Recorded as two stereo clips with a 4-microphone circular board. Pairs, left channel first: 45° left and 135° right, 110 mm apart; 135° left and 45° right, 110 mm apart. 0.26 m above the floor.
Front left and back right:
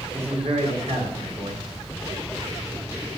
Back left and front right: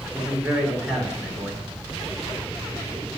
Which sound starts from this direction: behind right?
A man speaking, at 0.1 s.